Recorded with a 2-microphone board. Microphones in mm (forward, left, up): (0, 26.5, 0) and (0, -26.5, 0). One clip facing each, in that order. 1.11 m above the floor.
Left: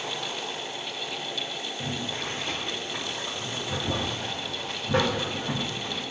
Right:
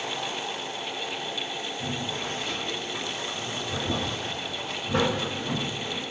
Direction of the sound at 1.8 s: 55° left (ahead or behind).